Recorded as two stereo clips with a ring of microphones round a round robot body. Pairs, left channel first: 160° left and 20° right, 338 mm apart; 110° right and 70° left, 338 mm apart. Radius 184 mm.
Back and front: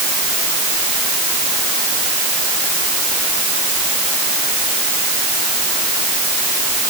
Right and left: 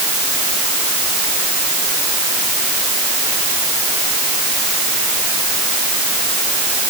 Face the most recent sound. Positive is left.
No sound to turn to.